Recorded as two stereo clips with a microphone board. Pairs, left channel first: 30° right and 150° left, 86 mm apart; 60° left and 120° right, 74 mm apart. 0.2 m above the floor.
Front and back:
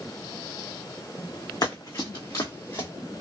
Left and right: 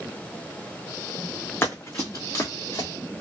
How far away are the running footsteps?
About 1.0 m.